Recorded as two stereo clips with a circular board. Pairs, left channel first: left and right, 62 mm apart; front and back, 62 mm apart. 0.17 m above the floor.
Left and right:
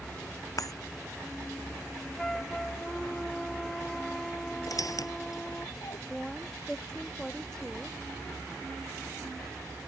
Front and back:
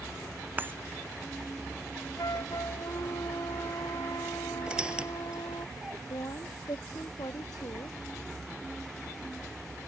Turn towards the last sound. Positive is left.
turn(degrees=10)